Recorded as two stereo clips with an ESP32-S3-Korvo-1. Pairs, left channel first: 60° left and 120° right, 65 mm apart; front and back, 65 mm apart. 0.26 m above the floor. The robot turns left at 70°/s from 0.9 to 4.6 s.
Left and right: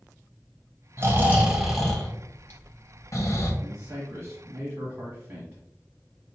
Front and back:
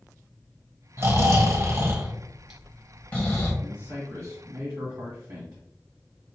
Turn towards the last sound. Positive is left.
turn(degrees=-175)